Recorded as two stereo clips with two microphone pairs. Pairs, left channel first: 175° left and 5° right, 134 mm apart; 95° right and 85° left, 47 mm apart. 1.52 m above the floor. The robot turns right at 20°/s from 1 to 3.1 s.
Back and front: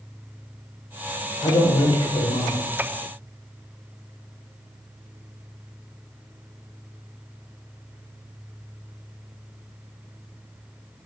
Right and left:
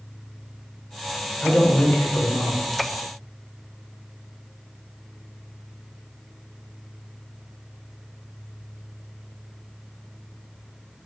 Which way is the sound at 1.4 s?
145° right.